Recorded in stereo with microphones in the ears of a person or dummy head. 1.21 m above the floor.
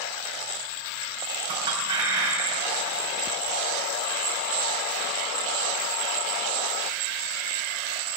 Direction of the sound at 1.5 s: 25° right (ahead or behind).